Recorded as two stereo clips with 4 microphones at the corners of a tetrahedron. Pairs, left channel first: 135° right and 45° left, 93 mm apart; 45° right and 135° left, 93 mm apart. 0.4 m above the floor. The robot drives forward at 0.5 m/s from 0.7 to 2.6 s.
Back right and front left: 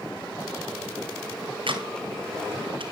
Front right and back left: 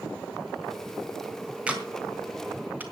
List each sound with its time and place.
1.7 s a camera shutter: 60° left, 4 m; by 2.8 s 65° left, 3.5 m